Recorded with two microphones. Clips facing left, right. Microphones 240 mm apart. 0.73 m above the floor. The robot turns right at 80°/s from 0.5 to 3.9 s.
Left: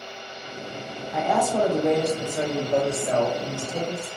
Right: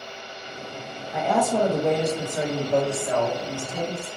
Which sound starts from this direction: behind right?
A woman speaking, at 1.1 s.